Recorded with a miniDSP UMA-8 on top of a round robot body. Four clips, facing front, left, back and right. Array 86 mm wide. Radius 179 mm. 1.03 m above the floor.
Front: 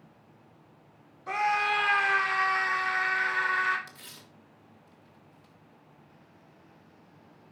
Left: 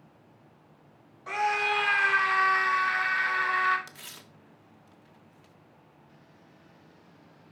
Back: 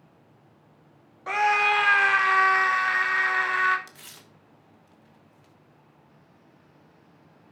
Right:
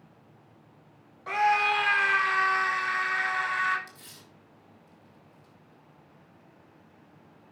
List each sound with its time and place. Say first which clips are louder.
1.3 s a scream: right 3 dB, back 5 dB; 170° right, 1.5 m; by 3.8 s 170° left, 2.5 m
3.9 s tearing paper: left 2 dB, even; 120° left, 1.6 m